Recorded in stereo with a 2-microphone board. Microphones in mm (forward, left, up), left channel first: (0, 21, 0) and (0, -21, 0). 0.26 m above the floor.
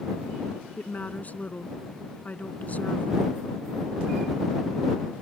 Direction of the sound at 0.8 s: 35° left (ahead or behind).